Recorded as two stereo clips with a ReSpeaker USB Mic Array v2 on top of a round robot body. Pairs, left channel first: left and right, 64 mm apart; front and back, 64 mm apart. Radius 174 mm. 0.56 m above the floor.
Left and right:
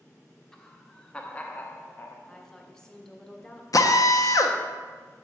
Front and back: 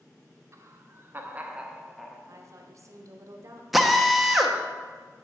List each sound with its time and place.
0.5 s laughter: 170° left, 1.3 m; by 2.2 s 70° left, 1.0 m
2.3 s a woman speaking: 165° left, 1.2 m
3.7 s a drill: 90° left, 0.8 m